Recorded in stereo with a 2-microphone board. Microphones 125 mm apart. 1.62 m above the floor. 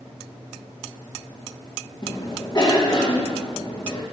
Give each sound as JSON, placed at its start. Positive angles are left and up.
{"t": 2.0, "sound": "a cough", "side_deg": 35, "distance_m": 2.5}